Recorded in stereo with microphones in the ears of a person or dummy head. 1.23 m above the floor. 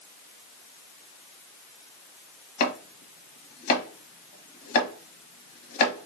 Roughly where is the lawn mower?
I don't hear a lawn mower.